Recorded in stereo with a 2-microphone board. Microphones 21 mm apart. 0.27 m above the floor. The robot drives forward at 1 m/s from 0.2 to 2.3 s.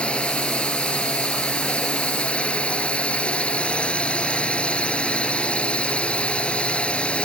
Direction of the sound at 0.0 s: 65° left (ahead or behind).